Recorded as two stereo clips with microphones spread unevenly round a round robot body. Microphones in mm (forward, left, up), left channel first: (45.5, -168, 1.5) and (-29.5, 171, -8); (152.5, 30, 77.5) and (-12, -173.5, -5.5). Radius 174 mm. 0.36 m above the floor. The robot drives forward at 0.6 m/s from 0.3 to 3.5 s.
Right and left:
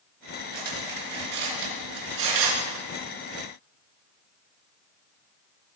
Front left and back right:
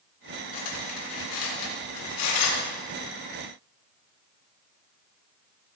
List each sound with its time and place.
0.5 s cutlery clinking: 50° left, 4 m; by 2.8 s 70° left, 3 m